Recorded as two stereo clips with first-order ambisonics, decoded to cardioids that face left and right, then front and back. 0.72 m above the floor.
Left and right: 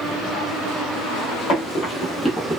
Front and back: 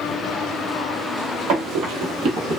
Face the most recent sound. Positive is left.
turn(degrees=-160)